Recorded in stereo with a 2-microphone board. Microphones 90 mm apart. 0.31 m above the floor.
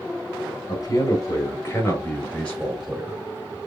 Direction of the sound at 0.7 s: 45° left (ahead or behind).